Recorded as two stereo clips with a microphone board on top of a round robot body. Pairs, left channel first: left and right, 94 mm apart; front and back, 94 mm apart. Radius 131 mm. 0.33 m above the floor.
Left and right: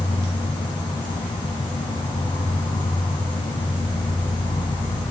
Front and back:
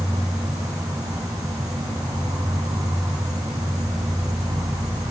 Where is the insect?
125° left, 1.2 m.